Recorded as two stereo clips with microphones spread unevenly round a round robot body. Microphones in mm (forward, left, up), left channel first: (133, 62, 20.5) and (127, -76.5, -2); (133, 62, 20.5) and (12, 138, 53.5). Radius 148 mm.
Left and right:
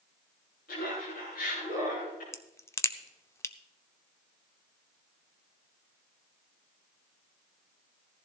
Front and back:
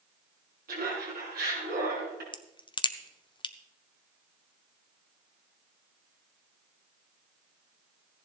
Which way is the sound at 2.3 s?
10° left.